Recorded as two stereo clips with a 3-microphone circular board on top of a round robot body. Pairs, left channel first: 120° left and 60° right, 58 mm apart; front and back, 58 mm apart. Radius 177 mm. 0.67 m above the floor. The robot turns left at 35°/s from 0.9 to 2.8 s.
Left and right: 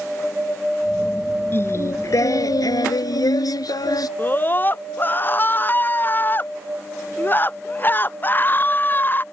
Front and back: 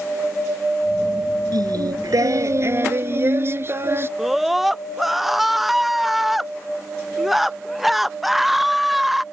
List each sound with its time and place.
1.5 s singing: 175° left; by 4.1 s 130° left
4.2 s a scream: 95° left